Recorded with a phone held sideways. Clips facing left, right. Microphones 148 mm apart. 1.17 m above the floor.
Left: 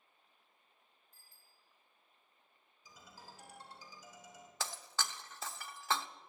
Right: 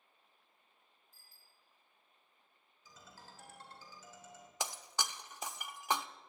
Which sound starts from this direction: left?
A bicycle bell, at 1.1 s.